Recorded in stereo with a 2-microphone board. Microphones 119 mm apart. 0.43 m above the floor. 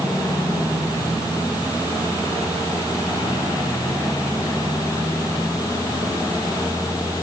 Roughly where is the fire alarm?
I don't hear a fire alarm.